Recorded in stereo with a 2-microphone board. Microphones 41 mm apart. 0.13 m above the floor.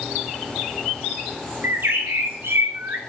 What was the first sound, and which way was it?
A bird, 70° right (ahead or behind).